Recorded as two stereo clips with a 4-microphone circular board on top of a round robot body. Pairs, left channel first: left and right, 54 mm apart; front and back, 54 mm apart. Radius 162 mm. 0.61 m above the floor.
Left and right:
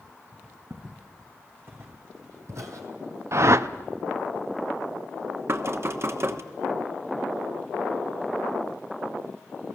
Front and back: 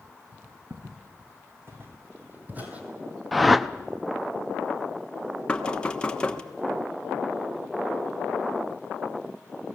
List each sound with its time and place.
0.7 s footsteps: 140° right, 2.5 m; by 2.9 s 110° right, 1.1 m
3.3 s a whoosh: 90° right, 0.8 m
5.5 s knocking: 70° right, 1.3 m